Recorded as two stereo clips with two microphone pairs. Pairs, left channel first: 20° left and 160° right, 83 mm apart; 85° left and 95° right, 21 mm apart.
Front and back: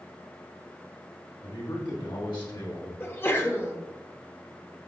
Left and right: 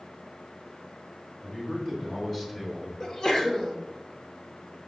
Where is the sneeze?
65° left, 0.9 m.